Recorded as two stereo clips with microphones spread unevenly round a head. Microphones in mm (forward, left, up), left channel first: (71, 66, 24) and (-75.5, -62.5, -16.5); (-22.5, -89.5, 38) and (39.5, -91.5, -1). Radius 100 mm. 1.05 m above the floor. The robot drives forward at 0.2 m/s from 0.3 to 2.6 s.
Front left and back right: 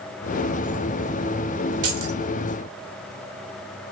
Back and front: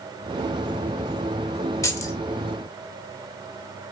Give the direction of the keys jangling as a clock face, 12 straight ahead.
4 o'clock.